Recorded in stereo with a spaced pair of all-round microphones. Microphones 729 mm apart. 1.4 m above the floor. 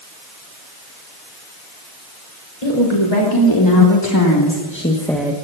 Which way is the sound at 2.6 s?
45° left (ahead or behind).